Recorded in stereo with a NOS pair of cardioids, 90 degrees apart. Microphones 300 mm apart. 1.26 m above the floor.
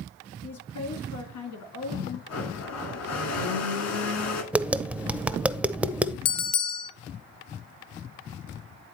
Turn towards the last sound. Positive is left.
turn(degrees=60)